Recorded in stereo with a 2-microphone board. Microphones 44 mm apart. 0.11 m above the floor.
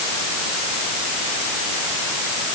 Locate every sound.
Only background noise.